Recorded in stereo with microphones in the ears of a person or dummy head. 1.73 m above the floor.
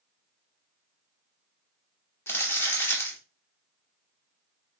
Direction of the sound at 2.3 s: 10° left (ahead or behind).